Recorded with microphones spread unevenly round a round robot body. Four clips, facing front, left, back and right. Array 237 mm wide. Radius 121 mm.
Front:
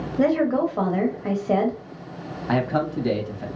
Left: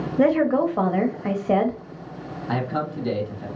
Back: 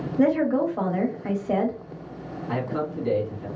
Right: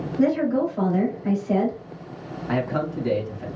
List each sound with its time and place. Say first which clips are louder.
0.2 s a woman speaking: left 2 dB, front 1 dB; 90° left, 1.2 m
2.5 s a man speaking: right 1 dB, front 5 dB; straight ahead, 2.0 m